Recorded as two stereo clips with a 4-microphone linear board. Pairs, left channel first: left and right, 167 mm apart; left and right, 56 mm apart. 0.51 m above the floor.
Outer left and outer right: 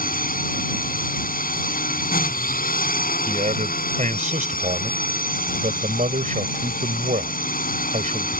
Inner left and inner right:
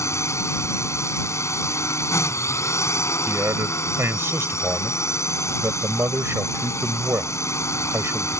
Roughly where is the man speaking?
Right.